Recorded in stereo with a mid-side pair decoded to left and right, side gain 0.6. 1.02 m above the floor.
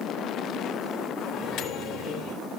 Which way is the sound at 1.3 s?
55° left.